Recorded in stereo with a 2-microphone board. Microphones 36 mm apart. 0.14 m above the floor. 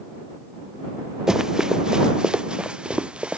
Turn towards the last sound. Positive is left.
turn(degrees=-30)  # may be behind; listen again after turning